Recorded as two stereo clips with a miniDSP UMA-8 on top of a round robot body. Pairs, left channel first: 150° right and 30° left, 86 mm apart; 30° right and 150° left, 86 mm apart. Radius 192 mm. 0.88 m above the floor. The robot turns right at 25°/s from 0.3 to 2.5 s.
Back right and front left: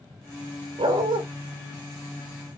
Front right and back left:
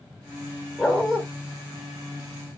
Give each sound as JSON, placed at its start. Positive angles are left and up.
{"t": 0.8, "sound": "a dog barking", "azimuth_deg": 45, "distance_m": 0.6}